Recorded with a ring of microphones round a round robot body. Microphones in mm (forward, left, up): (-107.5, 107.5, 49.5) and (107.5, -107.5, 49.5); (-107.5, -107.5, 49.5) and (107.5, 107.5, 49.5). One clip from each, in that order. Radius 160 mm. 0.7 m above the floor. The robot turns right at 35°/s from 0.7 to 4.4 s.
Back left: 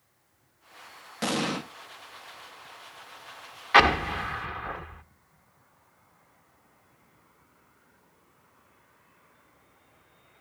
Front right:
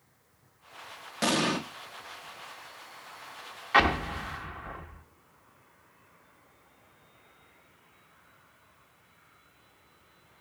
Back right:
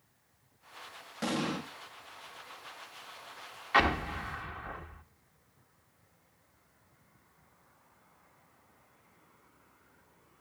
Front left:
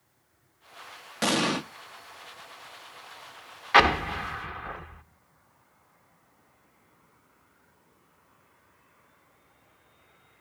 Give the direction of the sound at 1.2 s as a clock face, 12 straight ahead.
11 o'clock.